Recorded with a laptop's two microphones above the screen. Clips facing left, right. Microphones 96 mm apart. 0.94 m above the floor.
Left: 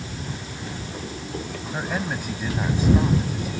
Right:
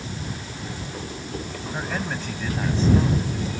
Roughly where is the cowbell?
I don't hear a cowbell.